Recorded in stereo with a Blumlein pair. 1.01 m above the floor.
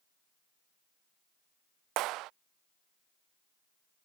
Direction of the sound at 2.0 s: 40° right.